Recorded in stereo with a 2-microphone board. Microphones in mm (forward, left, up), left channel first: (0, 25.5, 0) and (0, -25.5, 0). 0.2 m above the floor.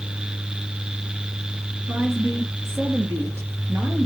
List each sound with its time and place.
1.9 s a woman speaking: 55° right (ahead or behind), 2.5 m; by 4.1 s 70° right (ahead or behind), 3.5 m